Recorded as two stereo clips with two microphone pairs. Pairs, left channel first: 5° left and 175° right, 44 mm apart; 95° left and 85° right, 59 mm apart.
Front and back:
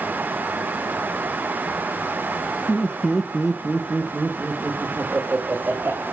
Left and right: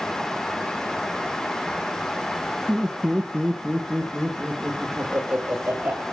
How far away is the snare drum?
I don't hear a snare drum.